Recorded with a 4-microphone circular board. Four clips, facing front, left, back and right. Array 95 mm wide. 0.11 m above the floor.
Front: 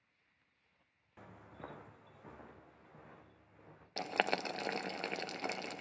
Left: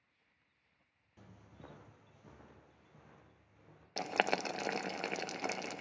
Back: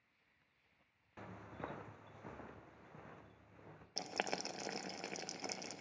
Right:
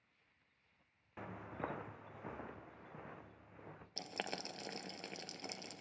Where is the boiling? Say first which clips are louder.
Left 12 dB, front 7 dB; 60° left, 0.7 m.